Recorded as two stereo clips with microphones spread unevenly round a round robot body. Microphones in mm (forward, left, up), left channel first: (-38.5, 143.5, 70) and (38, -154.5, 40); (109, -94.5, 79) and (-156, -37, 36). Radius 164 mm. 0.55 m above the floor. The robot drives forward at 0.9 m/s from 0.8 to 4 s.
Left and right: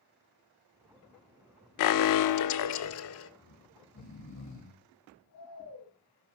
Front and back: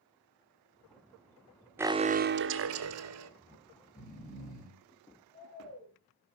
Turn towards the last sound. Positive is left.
turn(degrees=65)